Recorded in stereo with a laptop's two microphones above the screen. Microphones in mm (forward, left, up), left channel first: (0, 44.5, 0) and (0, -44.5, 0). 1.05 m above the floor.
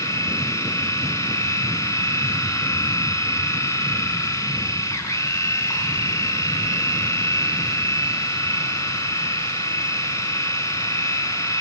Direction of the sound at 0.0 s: 35° left (ahead or behind).